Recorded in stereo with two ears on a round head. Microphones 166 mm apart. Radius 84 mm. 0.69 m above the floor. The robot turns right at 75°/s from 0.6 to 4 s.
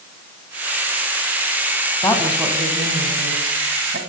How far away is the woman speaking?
About 5 m.